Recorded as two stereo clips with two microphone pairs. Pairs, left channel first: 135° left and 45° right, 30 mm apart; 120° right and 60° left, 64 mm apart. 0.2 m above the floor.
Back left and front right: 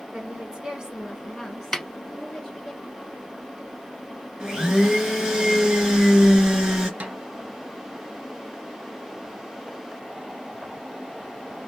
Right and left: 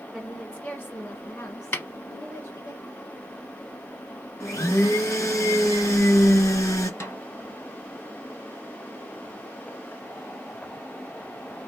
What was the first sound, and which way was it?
A woman speaking, 25° right.